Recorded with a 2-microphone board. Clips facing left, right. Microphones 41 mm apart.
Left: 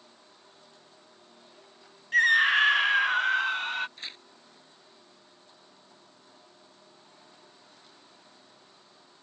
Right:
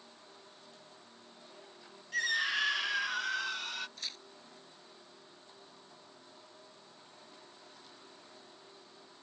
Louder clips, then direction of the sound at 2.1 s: Left 11 dB; 45° left (ahead or behind).